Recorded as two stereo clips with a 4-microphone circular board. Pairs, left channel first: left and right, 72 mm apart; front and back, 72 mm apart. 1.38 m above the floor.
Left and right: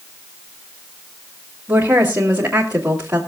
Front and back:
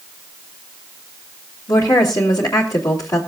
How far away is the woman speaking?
About 3 m.